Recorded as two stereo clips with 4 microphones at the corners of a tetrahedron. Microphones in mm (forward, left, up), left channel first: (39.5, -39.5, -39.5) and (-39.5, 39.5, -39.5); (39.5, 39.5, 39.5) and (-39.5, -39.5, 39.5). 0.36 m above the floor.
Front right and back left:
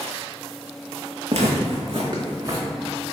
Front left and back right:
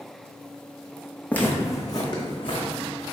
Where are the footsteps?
120° left, 0.8 m; by 2.7 s 80° left, 1.3 m.